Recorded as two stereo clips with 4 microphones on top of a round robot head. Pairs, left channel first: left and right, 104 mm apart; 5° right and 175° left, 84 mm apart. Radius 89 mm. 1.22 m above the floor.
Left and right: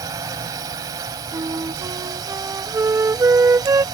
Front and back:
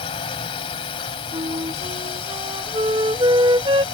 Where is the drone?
30° right.